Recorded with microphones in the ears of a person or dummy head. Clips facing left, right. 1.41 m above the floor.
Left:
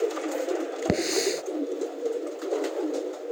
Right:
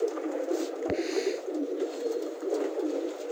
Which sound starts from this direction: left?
A hiss, at 0.9 s.